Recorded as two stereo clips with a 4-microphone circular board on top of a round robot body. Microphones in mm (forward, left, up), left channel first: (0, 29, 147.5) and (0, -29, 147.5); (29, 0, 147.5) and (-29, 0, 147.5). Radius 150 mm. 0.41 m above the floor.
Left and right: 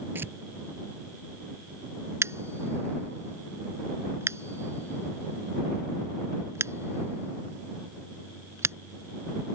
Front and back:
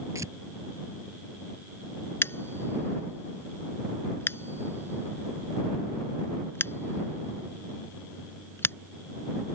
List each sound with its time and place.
0.1 s tearing paper: 145° right
2.2 s scissors: 50° right